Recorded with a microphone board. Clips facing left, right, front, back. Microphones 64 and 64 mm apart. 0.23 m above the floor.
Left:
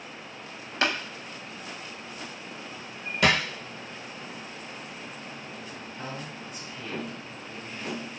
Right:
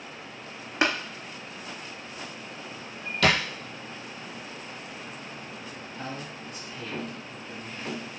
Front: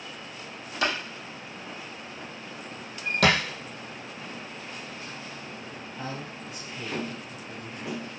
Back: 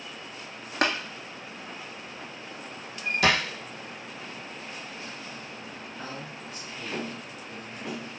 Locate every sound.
0.8 s tapping: 155° right, 0.7 m
3.2 s a thud: 15° left, 1.3 m
6.0 s a man speaking: 30° left, 1.3 m